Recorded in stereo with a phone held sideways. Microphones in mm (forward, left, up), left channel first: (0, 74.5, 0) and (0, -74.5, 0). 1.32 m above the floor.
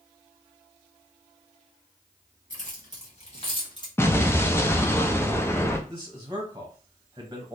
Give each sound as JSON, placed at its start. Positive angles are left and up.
{"t": 2.5, "sound": "keys jangling", "side_deg": 60, "distance_m": 1.6}
{"t": 4.0, "sound": "an explosion", "side_deg": 15, "distance_m": 0.5}
{"t": 5.9, "sound": "a man speaking", "side_deg": -20, "distance_m": 1.0}